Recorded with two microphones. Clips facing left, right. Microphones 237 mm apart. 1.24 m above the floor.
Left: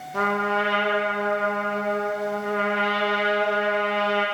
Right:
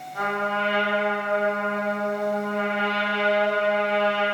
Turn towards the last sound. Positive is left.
turn(degrees=80)